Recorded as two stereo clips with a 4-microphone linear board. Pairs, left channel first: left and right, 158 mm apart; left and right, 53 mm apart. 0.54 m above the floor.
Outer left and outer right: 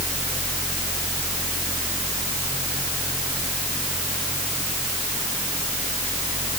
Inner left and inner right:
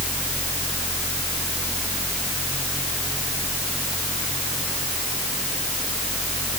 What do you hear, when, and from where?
Only background noise.